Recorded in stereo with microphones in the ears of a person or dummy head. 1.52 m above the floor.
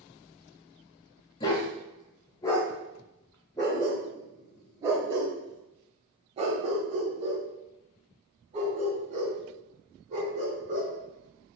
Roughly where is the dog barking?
Left.